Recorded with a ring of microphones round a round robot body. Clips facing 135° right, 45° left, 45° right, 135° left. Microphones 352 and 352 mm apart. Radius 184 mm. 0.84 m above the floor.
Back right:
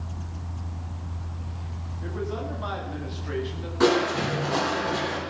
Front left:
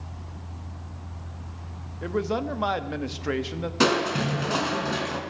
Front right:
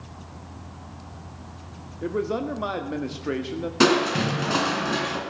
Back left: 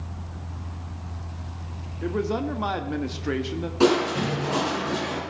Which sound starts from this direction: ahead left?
A man speaking, at 2.0 s.